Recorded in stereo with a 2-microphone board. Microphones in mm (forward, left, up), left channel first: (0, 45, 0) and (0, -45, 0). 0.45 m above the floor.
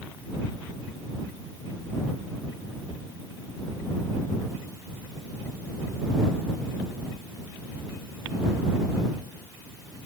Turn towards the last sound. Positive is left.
No sound to turn to.